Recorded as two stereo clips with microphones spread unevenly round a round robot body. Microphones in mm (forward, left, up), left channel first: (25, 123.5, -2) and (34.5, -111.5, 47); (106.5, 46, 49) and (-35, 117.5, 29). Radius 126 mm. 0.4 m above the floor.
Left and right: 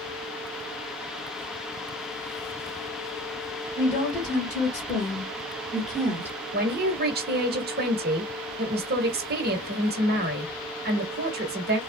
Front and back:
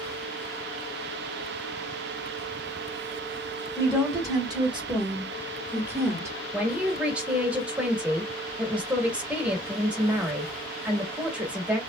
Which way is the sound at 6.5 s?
135° right.